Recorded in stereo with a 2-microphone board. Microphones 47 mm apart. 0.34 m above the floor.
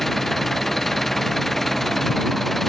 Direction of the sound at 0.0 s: 5° left (ahead or behind).